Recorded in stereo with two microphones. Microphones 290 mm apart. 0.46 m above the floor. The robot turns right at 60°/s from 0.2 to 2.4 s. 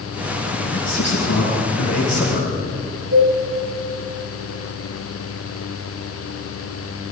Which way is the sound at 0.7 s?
40° left.